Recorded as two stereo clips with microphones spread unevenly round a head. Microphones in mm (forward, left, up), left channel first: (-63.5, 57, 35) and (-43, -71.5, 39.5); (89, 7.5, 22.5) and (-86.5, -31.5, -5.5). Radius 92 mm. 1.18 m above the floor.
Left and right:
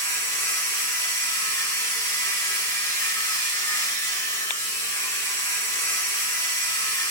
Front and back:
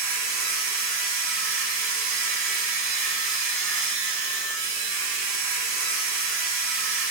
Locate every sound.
0.0 s a machine running: 165° left, 1.8 m